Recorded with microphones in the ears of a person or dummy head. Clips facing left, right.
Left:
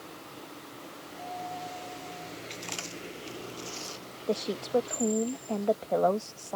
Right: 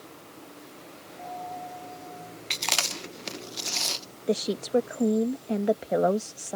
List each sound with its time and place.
1.2 s a dropped coin: 20° left (ahead or behind)
2.5 s chewing: 70° right (ahead or behind)
4.3 s a woman speaking: 20° right (ahead or behind)